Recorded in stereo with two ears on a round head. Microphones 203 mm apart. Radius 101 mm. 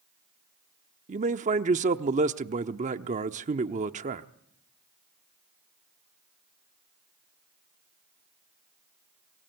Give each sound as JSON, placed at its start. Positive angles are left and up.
{"t": 1.1, "sound": "a man speaking", "side_deg": -35, "distance_m": 0.9}